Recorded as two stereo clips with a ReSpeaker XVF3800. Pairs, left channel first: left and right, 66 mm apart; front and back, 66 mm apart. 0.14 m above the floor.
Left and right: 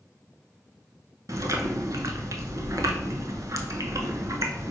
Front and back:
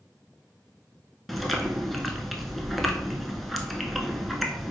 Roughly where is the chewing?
Right.